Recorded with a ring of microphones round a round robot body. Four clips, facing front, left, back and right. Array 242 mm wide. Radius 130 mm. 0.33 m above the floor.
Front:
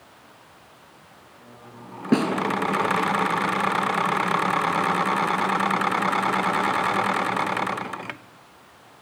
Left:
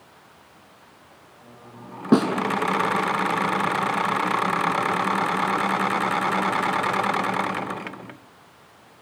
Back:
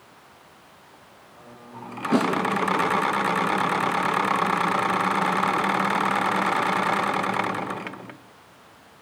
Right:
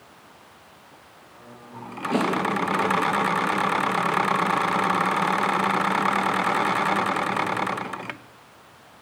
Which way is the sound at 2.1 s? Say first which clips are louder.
Left 5 dB, front 1 dB; 65° left.